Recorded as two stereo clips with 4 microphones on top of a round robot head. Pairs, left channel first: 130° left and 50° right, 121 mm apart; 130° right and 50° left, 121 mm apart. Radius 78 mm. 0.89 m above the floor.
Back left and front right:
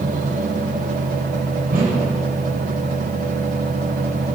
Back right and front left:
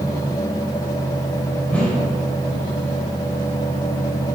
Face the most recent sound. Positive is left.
turn(degrees=-55)